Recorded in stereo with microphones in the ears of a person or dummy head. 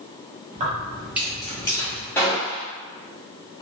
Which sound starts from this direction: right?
Keys jangling, at 0.5 s.